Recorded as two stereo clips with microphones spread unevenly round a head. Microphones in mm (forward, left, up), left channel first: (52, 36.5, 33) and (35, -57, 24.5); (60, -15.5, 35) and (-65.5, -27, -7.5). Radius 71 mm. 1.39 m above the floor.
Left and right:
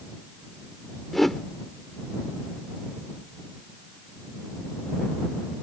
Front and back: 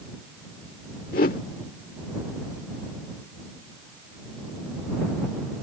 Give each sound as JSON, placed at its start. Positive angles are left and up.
{"t": 1.1, "sound": "a whoosh", "azimuth_deg": -5}